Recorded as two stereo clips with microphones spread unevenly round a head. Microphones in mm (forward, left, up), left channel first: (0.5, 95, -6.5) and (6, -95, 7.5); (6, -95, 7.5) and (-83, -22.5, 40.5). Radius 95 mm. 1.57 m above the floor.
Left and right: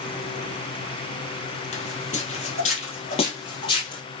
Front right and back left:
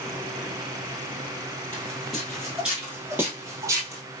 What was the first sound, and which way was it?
Footsteps, 60° left.